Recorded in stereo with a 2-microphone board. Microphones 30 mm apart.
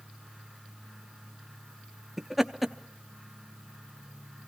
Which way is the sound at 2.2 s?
5° right (ahead or behind).